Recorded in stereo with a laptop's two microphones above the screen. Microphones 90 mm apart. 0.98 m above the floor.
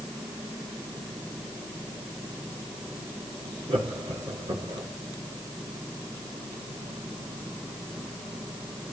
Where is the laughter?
75° right (ahead or behind), 3 m.